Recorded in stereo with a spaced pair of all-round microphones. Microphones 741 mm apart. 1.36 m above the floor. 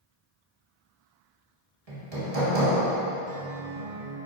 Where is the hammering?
50° right (ahead or behind), 2 m.